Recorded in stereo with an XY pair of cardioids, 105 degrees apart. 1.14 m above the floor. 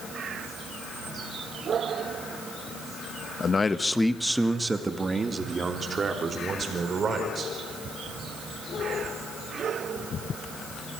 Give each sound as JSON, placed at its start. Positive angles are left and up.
{"t": 3.4, "sound": "a man speaking", "azimuth_deg": 40, "distance_m": 1.2}